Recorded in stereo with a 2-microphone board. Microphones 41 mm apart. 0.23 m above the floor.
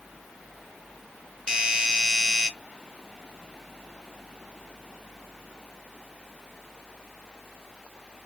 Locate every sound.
1.5 s a doorbell: 15° right (ahead or behind), 1.6 m